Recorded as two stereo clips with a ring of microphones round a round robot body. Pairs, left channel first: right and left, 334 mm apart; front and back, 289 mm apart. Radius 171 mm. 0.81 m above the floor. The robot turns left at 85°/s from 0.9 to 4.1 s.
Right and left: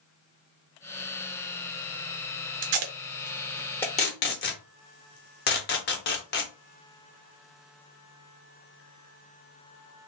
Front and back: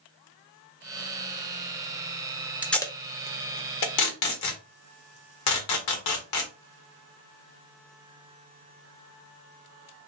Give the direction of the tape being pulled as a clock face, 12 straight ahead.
9 o'clock.